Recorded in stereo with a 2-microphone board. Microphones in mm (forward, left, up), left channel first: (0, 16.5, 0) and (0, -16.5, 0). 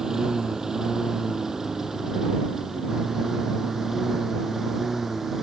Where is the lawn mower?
15° right (ahead or behind); by 5.4 s 5° right (ahead or behind).